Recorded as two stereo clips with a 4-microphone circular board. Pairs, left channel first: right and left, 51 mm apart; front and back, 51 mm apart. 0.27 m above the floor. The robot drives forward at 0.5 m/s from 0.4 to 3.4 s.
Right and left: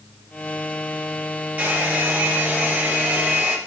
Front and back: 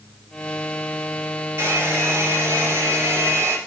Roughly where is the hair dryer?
Behind left.